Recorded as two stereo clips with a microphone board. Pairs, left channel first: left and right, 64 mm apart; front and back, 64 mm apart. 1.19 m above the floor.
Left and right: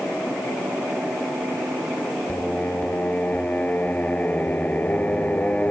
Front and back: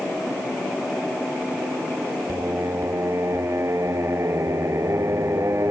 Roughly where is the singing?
Behind left.